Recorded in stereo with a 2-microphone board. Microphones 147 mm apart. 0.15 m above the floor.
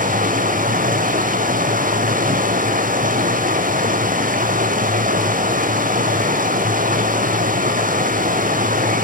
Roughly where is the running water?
Right.